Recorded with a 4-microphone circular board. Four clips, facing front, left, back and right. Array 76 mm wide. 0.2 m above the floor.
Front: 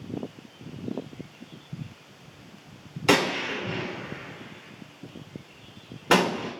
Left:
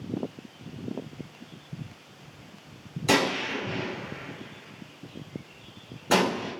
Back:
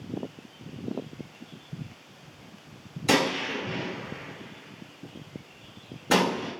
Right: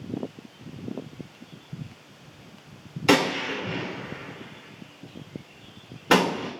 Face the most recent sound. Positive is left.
turn(degrees=-45)